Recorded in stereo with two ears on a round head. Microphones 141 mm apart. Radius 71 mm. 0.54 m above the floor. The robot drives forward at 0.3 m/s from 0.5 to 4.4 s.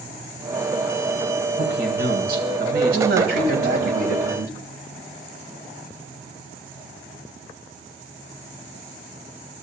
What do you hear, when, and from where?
1.6 s a man speaking: 70° right (ahead or behind), 3 m; by 3.9 s 65° right (ahead or behind), 3 m
2.9 s a man speaking: 70° right (ahead or behind), 4 m; by 4.5 s 65° right (ahead or behind), 4 m